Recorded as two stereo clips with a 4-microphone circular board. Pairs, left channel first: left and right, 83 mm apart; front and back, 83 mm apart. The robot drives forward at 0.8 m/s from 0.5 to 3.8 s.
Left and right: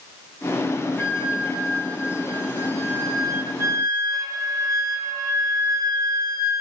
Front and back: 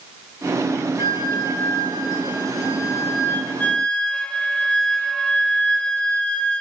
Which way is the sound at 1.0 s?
15° right.